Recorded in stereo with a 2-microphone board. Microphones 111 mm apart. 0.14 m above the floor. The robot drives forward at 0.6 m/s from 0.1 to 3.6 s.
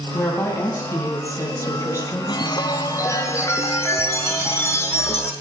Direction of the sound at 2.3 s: 45° left (ahead or behind).